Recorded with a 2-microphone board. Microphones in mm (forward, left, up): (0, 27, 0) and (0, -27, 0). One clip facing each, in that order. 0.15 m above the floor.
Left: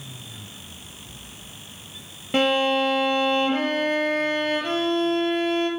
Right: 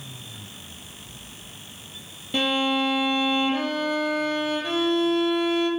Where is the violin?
40° left (ahead or behind), 0.8 m.